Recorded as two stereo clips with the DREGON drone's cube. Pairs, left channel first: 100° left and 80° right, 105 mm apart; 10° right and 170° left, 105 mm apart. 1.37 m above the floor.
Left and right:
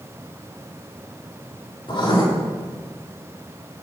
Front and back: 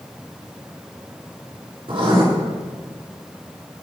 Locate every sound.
1.9 s writing: 140° left, 5.5 m